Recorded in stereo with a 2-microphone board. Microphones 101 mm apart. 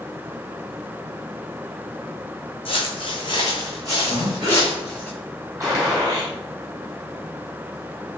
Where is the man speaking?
I don't hear a man speaking.